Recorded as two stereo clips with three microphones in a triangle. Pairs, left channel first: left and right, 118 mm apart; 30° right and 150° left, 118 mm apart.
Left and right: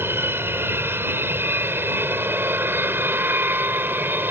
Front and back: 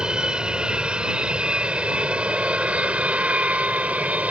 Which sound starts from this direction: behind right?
An aircraft, at 0.0 s.